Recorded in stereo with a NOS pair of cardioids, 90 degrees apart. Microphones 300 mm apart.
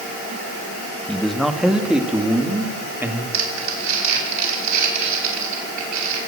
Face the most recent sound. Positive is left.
turn(degrees=-65)